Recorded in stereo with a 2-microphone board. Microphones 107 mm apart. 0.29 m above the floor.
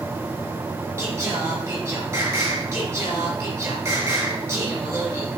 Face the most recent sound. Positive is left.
turn(degrees=-25)  # may be behind; listen again after turning